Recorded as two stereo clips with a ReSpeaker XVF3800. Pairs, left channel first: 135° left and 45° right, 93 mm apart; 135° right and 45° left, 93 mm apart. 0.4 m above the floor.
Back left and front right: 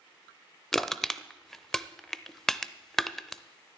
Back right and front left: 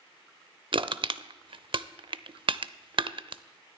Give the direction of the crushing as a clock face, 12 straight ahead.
10 o'clock.